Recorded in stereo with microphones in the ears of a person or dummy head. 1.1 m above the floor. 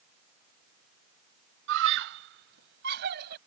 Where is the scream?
70° right (ahead or behind); by 3.4 s 55° right (ahead or behind).